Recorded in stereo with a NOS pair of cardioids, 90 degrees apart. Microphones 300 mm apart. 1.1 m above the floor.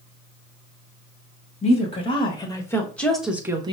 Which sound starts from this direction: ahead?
A woman speaking, at 1.6 s.